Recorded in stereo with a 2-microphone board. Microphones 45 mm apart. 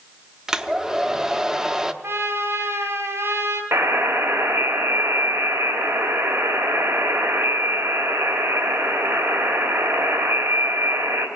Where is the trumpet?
70° right (ahead or behind), 3 m.